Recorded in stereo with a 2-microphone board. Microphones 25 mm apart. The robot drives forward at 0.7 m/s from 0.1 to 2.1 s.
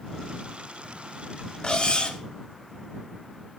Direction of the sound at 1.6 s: 35° left (ahead or behind).